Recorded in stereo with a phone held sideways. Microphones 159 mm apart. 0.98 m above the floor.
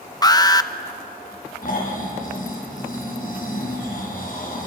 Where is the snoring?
65° left (ahead or behind), 5.5 m.